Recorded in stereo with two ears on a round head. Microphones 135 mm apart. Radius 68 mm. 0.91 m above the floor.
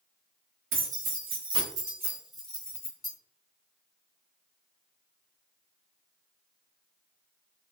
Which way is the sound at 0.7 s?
55° right (ahead or behind).